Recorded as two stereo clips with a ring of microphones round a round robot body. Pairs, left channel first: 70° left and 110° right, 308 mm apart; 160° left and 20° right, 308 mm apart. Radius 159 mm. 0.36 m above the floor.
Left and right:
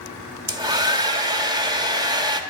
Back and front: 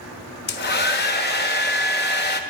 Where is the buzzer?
I don't hear a buzzer.